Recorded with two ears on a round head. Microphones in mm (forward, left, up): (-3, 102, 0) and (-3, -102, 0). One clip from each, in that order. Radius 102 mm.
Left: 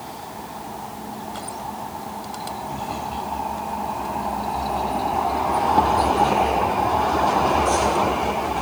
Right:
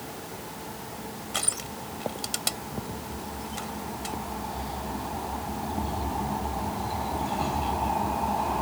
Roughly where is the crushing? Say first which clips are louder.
Right 2 dB; right.